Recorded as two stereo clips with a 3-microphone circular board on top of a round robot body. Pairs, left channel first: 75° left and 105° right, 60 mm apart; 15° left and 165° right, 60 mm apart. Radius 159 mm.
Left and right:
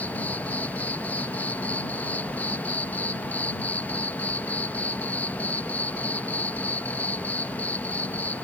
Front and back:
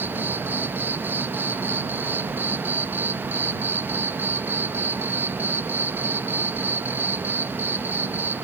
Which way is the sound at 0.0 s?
140° left.